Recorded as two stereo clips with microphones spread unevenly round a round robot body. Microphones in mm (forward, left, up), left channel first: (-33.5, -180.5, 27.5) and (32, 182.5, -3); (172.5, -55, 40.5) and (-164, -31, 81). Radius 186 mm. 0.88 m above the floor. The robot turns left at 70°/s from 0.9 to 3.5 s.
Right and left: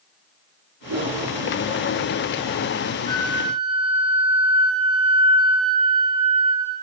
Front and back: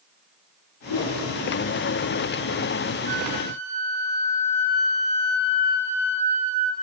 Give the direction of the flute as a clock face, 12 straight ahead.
6 o'clock.